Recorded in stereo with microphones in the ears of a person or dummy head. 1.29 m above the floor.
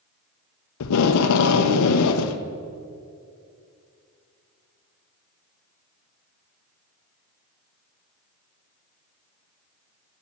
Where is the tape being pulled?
80° left, 0.6 m.